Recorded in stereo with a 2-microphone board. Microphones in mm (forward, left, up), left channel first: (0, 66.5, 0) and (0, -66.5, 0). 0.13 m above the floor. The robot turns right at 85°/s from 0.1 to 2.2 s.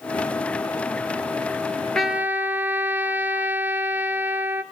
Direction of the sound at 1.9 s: 5° left (ahead or behind).